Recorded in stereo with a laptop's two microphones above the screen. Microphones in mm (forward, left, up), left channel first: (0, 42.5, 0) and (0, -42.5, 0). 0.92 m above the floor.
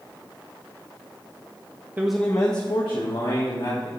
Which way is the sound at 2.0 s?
20° right (ahead or behind).